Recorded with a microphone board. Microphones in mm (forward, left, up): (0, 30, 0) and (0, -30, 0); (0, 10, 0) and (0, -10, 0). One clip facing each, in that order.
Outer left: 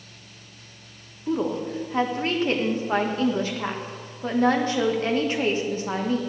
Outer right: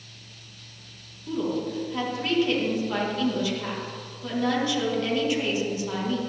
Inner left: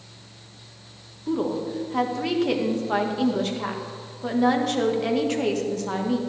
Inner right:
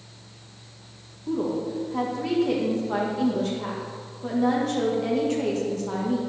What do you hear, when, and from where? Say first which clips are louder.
1.3 s a woman speaking: outer left 2 dB, inner left 1 dB; 35° left (ahead or behind), 1.6 m